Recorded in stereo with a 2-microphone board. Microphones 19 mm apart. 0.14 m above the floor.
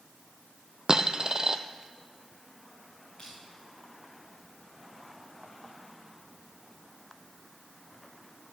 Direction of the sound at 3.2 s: 40° left (ahead or behind).